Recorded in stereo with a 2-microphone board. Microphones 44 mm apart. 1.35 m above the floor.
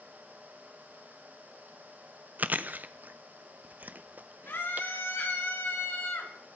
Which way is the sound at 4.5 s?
60° left (ahead or behind).